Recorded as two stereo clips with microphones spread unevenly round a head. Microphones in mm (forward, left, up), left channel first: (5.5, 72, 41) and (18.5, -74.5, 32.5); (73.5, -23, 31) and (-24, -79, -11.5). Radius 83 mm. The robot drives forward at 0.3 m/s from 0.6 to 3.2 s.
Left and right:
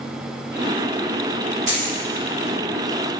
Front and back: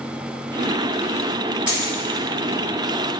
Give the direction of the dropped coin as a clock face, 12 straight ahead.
2 o'clock.